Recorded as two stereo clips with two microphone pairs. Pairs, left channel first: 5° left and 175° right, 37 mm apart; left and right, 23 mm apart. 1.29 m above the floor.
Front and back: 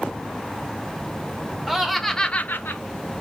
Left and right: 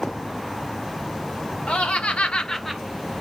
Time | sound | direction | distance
1.7 | laughter | 100° left | 1.4 m